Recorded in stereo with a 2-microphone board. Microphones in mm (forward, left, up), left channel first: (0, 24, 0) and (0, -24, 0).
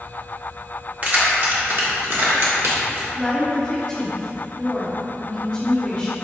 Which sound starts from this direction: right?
Keys jangling, at 1.0 s.